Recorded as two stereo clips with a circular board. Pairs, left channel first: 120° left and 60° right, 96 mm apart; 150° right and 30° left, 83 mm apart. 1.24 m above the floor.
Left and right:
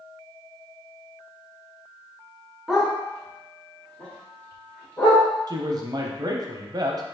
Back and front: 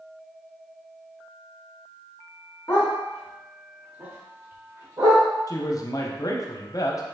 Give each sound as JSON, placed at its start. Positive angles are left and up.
{"t": 2.7, "sound": "a dog barking", "azimuth_deg": -145, "distance_m": 1.0}
{"t": 5.5, "sound": "a man speaking", "azimuth_deg": -105, "distance_m": 0.5}